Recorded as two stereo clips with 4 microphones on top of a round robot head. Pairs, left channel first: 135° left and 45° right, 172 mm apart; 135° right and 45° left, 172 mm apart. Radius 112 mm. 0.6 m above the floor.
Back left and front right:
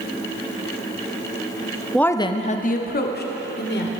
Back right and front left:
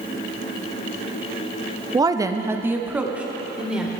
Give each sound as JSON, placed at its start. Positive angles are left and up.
{"t": 1.9, "sound": "a woman speaking", "azimuth_deg": 50, "distance_m": 0.7}